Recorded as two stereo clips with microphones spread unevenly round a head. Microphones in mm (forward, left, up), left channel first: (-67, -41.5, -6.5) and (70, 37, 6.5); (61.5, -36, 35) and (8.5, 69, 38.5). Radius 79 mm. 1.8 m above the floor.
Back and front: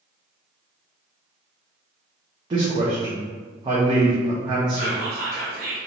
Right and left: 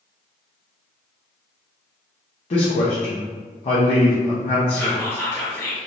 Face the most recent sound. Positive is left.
turn(degrees=5)